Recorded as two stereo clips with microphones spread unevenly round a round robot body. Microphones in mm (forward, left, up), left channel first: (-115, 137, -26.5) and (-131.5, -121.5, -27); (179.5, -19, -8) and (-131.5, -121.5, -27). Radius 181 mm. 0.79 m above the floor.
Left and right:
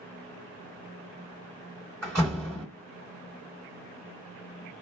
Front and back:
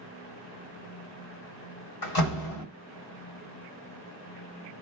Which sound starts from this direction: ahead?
A door slam, at 2.0 s.